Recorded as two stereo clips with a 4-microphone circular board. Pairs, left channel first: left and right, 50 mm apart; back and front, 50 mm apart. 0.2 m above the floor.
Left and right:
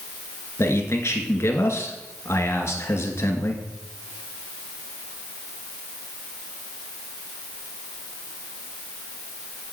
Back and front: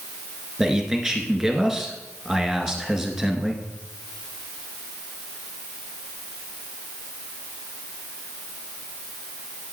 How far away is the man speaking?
About 2.5 m.